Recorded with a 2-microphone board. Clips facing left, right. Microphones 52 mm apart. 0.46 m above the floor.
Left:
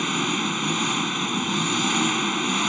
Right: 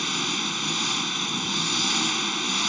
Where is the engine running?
15° left (ahead or behind).